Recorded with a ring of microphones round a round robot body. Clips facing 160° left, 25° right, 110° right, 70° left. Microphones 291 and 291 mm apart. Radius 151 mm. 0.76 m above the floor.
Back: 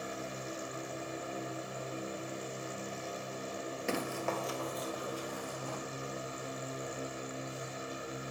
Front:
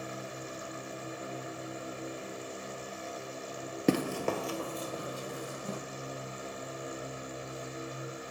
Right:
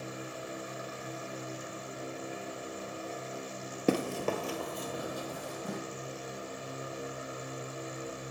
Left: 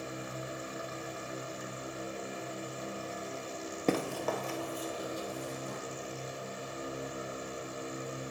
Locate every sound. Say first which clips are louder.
3.9 s running footsteps: front 8 dB, right 2 dB; 40° right, 0.9 m; by 5.8 s 90° right, 1.9 m